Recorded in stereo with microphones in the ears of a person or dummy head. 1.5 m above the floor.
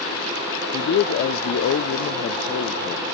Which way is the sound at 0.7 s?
60° left (ahead or behind).